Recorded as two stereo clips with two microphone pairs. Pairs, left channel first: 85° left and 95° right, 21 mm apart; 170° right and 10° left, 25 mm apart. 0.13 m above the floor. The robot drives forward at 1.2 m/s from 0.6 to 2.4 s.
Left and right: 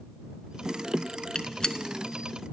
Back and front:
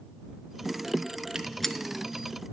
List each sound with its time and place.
1.4 s a gunshot: 60° left, 0.5 m; by 1.8 s 130° left, 0.5 m